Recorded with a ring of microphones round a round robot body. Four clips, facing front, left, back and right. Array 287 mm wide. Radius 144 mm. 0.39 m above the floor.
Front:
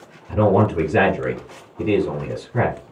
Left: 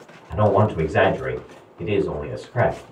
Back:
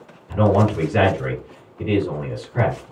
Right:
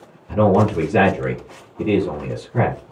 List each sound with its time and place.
0.3 s a man speaking: 50° right, 2 m